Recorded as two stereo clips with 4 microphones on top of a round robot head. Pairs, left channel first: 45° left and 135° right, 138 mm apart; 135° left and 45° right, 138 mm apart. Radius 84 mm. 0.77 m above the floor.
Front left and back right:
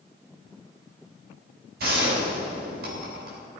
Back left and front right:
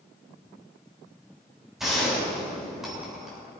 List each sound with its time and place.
1.8 s a gunshot: 135° right, 6.5 m